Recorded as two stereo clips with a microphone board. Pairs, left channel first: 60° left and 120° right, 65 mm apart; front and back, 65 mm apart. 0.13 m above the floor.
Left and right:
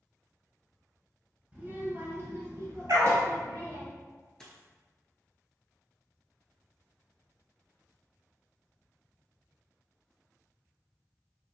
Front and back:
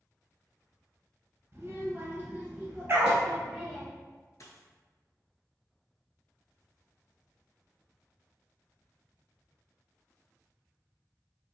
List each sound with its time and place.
1.5 s a child speaking: 175° right, 1.1 m; by 3.9 s 95° right, 1.8 m
2.9 s a dog barking: 130° right, 0.8 m
4.4 s a dropped coin: 20° right, 0.7 m